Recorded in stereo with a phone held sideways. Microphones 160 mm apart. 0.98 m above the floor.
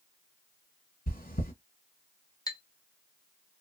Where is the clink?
25° left (ahead or behind), 0.8 m.